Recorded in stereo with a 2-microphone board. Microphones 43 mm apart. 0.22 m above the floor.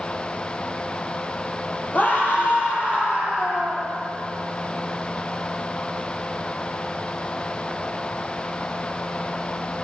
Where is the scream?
35° left (ahead or behind), 8 m; by 3.9 s 30° left (ahead or behind), 7 m.